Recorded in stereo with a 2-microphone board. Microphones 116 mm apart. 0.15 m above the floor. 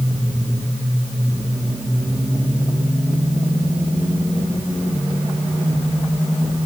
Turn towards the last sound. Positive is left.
No sound to turn to.